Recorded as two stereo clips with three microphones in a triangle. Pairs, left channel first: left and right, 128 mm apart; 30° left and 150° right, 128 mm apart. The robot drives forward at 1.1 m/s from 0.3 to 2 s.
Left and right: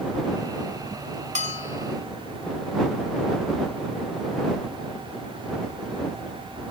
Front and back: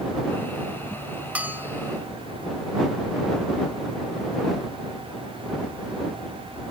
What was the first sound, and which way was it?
A bell, 70° right.